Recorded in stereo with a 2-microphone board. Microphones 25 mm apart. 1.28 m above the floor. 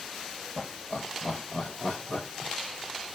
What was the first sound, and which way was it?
Laughter, 70° left (ahead or behind).